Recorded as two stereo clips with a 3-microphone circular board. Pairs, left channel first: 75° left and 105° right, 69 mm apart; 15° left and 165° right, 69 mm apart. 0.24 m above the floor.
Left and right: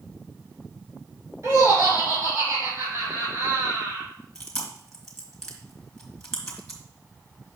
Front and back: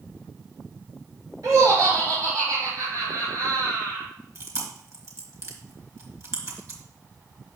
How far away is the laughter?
About 3 m.